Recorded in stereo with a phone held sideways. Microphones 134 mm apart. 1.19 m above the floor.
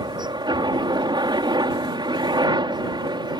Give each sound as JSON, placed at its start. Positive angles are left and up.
{"t": 0.0, "sound": "a helicopter", "side_deg": -30}